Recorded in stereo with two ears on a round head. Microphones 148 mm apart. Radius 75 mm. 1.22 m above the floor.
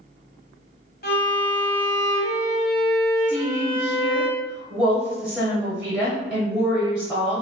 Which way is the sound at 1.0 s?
60° left (ahead or behind).